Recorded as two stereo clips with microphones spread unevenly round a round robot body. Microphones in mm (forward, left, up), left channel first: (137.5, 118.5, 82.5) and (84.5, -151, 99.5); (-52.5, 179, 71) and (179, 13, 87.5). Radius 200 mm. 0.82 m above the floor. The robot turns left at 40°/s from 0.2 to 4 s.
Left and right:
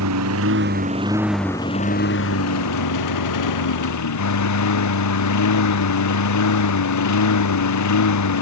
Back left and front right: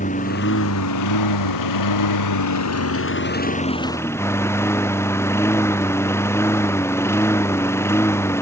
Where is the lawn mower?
145° right; by 8.4 s 65° left.